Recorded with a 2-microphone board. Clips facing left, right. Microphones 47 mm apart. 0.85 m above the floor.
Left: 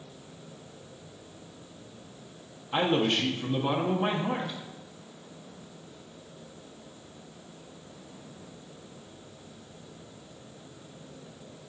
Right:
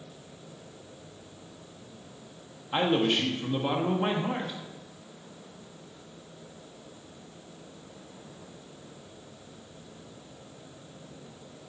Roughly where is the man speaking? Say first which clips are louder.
Even; centre.